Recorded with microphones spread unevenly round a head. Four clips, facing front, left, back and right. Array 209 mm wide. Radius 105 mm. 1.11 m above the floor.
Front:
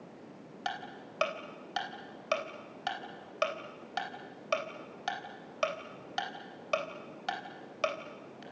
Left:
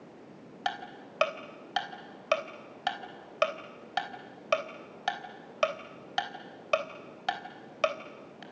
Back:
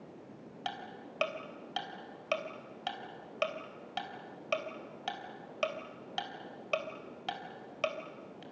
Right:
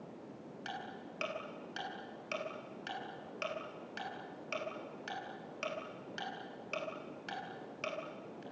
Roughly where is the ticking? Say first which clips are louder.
Left 10 dB, front 3 dB; left.